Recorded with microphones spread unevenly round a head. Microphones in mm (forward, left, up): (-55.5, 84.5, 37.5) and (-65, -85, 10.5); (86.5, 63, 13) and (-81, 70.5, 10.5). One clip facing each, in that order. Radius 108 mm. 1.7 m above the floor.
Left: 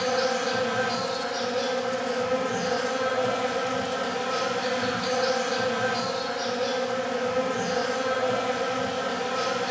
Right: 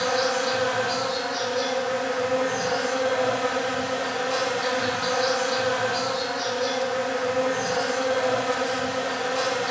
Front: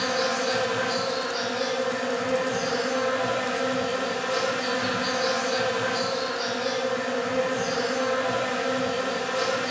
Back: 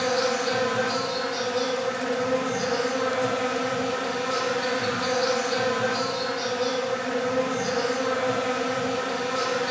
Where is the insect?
175° left, 2.5 m.